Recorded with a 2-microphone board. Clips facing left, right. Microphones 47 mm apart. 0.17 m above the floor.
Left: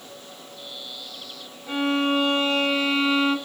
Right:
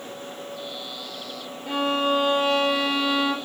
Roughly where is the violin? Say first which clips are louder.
Even; right.